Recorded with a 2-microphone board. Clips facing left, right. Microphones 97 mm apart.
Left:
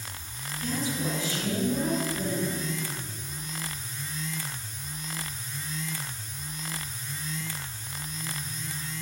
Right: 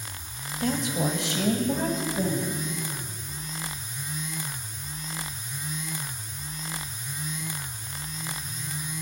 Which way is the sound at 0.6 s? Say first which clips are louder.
Right 4 dB; 70° right (ahead or behind).